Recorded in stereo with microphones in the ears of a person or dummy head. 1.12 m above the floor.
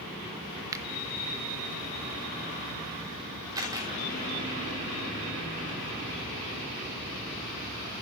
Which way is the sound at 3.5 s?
20° right (ahead or behind).